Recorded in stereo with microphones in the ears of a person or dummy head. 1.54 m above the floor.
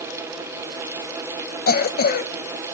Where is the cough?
45° left (ahead or behind), 1.4 m.